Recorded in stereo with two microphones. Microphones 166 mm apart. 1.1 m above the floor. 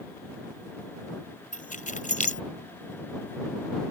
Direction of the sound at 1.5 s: 55° left (ahead or behind).